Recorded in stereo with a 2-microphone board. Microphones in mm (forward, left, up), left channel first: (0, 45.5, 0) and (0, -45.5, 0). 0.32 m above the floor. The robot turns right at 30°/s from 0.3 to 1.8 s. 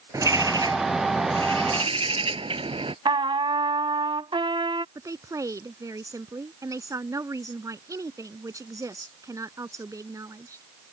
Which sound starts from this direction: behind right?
A bird, at 0.1 s.